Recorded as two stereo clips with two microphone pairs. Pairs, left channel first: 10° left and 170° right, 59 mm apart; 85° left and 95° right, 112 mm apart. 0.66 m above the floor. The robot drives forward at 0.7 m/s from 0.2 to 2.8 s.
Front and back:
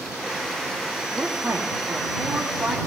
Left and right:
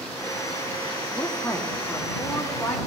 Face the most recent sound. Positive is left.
turn(degrees=170)